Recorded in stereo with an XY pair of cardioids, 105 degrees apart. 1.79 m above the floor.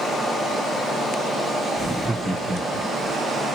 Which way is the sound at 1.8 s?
Straight ahead.